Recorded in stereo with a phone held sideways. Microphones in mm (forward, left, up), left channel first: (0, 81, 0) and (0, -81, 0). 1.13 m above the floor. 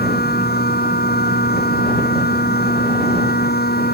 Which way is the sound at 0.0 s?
75° left (ahead or behind).